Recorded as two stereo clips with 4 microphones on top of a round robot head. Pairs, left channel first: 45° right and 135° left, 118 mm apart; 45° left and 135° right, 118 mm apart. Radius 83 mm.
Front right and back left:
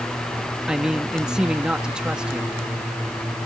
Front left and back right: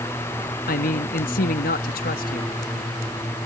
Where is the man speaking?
50° left.